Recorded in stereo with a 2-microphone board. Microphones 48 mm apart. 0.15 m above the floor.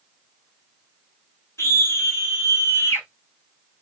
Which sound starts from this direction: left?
A scream, at 1.6 s.